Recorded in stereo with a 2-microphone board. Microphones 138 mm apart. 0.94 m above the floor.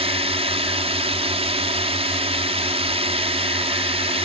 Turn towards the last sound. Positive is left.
turn(degrees=-45)  # may be behind; listen again after turning